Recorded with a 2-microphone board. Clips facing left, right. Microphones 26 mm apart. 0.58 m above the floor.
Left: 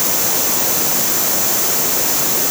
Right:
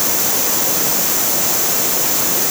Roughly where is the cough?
I don't hear a cough.